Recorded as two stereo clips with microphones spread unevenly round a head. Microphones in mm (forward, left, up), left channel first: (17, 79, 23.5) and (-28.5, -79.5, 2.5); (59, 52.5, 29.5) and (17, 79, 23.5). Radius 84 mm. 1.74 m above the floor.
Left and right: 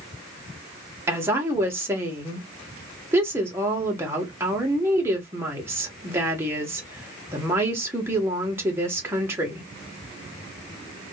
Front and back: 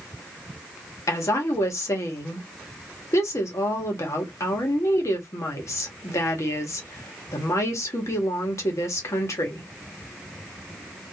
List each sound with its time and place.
1.1 s a woman speaking: 25° right, 1.4 m